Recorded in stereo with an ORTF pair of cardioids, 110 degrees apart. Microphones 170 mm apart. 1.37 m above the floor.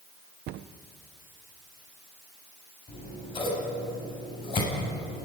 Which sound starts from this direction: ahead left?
Scissors, at 2.9 s.